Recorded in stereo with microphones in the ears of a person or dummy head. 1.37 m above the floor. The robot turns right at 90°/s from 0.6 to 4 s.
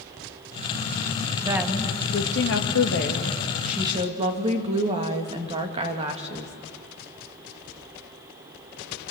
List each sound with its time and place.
1.4 s a woman speaking: 25° right, 2.5 m; by 6.5 s 155° right, 2.5 m